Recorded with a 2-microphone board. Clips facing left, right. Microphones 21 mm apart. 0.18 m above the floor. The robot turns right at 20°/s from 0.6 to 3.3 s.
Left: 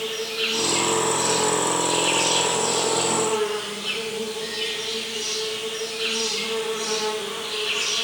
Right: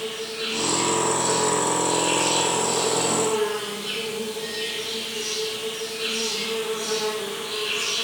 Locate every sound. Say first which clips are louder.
0.0 s an insect: left 3 dB; 110° left, 0.8 m; by 8.0 s 160° left, 0.8 m